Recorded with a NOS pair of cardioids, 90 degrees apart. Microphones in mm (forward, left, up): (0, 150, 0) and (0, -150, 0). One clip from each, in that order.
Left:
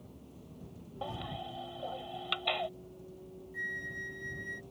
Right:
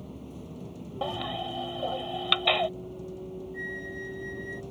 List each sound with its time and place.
0.0 s a vehicle: 70° right
1.0 s a baby crying: 60° right
3.5 s a flute: 20° left